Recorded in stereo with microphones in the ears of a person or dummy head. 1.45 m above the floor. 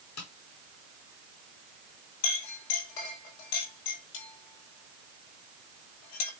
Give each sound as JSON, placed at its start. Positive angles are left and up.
{"t": 0.2, "sound": "tapping", "side_deg": 70, "distance_m": 3.0}
{"t": 2.2, "sound": "a clink", "side_deg": 85, "distance_m": 5.0}